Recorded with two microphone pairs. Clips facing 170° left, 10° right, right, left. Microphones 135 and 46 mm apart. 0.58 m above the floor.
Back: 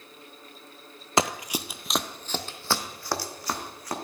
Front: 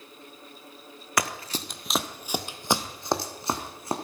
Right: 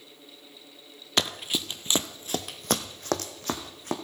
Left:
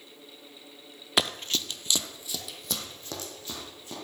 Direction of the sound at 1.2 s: 160° left.